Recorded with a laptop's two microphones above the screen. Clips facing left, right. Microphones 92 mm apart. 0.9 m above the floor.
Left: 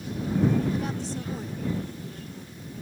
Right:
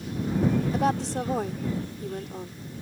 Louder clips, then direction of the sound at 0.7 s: Right 6 dB; 80° right.